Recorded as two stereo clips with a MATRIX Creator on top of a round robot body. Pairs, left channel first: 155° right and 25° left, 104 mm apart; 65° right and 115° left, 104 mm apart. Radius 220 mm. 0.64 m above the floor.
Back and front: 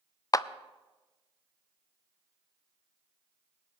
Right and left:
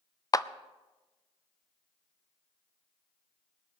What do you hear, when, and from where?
0.3 s a clap: 110° right, 0.6 m